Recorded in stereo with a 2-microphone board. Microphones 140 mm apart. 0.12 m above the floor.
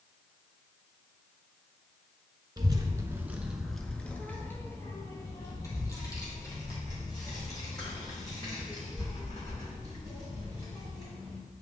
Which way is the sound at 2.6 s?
30° right (ahead or behind).